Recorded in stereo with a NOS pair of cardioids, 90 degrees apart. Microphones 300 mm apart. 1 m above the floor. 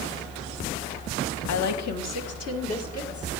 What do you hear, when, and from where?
1.5 s a woman speaking: 70° left, 1.2 m; by 3.4 s 50° left, 3 m